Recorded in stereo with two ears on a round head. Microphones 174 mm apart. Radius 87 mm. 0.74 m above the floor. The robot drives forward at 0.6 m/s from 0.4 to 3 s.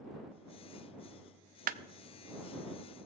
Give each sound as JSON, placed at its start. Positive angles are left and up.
{"t": 1.7, "sound": "a clap", "side_deg": -45, "distance_m": 0.5}